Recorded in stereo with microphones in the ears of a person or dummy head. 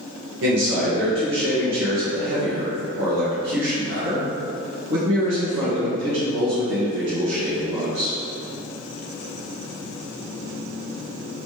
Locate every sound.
0.4 s a man speaking: 75° right (ahead or behind), 1.4 m